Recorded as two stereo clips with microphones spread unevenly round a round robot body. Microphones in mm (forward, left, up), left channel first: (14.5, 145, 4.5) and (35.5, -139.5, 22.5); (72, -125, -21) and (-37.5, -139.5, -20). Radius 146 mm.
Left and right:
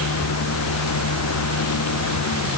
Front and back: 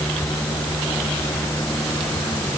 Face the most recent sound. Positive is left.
No sound to turn to.